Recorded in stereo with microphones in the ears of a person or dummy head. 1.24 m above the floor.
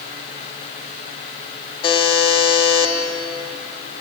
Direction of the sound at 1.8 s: 30° left (ahead or behind).